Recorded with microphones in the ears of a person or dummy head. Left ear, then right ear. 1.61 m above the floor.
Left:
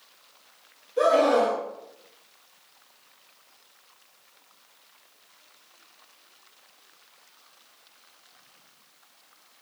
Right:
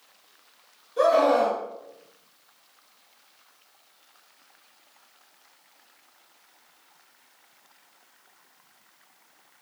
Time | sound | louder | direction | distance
1.0 | a scream | even | 10° right (ahead or behind) | 1.4 m